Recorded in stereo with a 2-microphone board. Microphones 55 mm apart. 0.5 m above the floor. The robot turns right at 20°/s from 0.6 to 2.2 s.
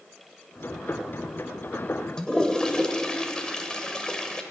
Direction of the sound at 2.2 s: 15° left (ahead or behind).